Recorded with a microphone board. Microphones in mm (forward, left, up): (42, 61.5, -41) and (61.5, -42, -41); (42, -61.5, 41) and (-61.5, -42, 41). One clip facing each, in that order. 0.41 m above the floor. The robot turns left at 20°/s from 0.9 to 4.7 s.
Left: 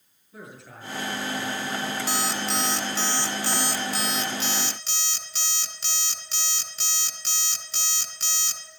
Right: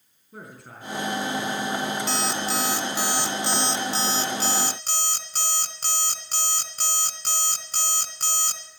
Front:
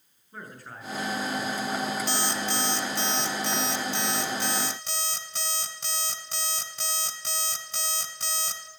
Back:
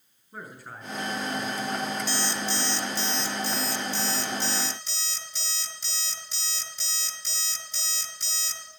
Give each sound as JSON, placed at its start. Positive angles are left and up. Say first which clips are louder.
{"t": 0.3, "sound": "a man speaking", "louder": "right 1 dB, back 1 dB", "azimuth_deg": -110, "distance_m": 6.5}
{"t": 2.1, "sound": "an alarm clock", "louder": "right 1 dB, front 1 dB", "azimuth_deg": 15, "distance_m": 1.9}